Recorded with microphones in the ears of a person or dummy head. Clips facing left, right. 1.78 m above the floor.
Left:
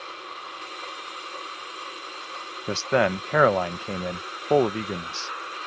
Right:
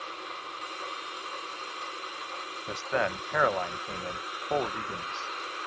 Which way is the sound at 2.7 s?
55° left (ahead or behind).